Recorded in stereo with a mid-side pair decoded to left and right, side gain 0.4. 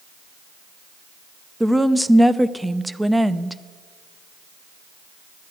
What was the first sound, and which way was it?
A woman speaking, 10° right.